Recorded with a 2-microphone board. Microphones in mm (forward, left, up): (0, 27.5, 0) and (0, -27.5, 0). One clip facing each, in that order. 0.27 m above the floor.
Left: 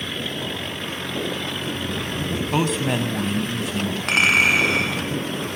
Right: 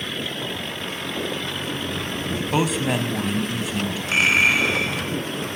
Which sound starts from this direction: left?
A clink, at 4.1 s.